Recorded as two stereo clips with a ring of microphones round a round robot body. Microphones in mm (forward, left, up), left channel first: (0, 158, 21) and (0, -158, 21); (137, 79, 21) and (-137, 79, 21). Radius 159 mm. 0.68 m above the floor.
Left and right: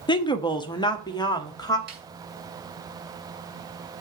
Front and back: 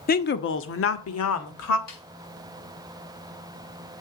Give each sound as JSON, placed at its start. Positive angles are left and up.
{"t": 0.1, "sound": "a woman speaking", "azimuth_deg": 25, "distance_m": 0.8}
{"t": 1.9, "sound": "a snare drum", "azimuth_deg": -30, "distance_m": 4.0}